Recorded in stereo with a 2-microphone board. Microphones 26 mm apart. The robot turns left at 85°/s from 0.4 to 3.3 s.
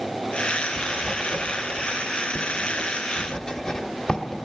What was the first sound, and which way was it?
Writing, 20° right (ahead or behind).